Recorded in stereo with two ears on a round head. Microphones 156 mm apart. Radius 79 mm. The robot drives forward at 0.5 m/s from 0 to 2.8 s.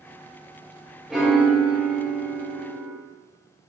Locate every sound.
1.1 s a piano: centre (ahead or behind), 0.8 m